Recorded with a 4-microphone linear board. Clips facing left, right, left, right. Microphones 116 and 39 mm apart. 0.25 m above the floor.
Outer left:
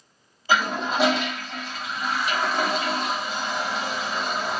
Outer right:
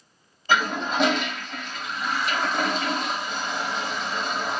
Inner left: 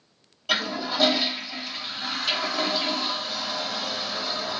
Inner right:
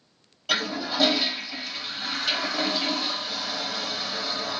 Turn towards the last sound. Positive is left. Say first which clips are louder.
# even, inner left 1 dB
turn(degrees=5)  # may be behind; listen again after turning